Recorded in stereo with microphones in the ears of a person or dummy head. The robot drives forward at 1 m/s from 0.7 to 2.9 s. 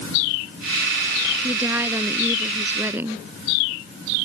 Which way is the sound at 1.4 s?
15° right (ahead or behind).